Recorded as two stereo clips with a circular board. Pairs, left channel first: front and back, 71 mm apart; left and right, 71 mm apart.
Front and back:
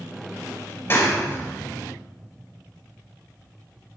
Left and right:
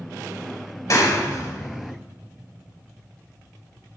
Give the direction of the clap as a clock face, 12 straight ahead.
10 o'clock.